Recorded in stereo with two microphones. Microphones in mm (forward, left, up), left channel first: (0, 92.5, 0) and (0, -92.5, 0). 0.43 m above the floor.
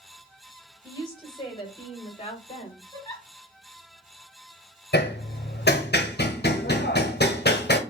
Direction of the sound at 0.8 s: 20° left (ahead or behind).